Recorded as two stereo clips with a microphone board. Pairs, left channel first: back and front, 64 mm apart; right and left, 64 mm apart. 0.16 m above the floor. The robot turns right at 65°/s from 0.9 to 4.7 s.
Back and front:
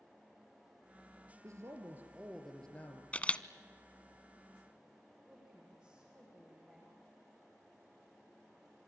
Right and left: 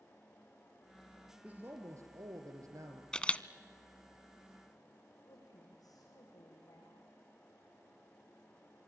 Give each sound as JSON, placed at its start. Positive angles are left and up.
{"t": 1.4, "sound": "a man speaking", "azimuth_deg": 25, "distance_m": 3.0}
{"t": 3.1, "sound": "a camera shutter", "azimuth_deg": -150, "distance_m": 0.6}
{"t": 5.2, "sound": "a woman speaking", "azimuth_deg": -75, "distance_m": 8.0}